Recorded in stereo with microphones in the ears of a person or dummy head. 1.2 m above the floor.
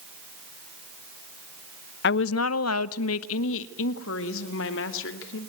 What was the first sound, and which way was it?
A woman speaking, 55° left (ahead or behind).